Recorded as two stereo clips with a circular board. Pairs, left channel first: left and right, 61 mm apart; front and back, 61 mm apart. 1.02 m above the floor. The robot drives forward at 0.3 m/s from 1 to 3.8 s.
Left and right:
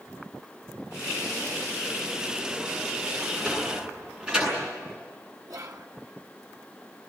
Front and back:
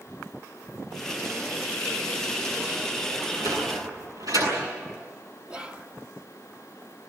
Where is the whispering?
105° right, 1.3 m.